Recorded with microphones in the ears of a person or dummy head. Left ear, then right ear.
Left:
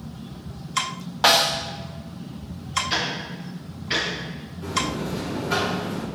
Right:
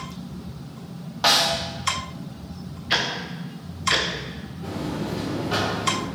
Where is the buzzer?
35° left (ahead or behind), 3 m.